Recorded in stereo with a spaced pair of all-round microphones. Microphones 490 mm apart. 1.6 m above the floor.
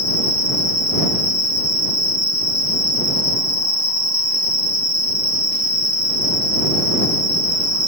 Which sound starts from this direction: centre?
An insect, at 0.0 s.